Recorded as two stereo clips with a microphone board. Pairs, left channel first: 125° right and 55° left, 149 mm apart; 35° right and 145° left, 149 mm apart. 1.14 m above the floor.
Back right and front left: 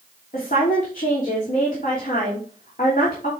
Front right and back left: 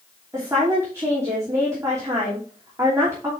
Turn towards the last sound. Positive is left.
turn(degrees=-145)